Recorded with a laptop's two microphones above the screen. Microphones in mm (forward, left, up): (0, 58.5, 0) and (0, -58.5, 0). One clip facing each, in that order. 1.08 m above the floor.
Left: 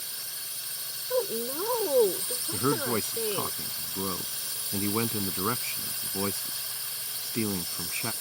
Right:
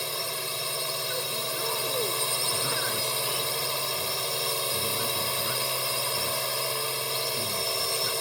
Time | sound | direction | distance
0.0 | a drone | 75° right (ahead or behind) | ?
1.1 | a woman speaking | 40° left (ahead or behind) | ?
2.5 | a man speaking | 70° left (ahead or behind) | ?